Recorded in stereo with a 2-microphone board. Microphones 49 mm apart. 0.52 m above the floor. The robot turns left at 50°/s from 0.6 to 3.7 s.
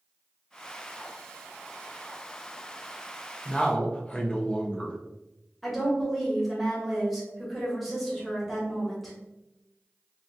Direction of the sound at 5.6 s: Centre (ahead or behind).